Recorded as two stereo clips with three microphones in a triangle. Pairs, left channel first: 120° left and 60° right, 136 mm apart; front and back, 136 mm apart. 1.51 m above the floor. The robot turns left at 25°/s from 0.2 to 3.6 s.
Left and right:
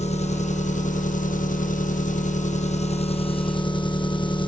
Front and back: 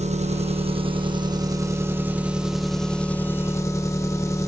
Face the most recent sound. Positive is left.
turn(degrees=65)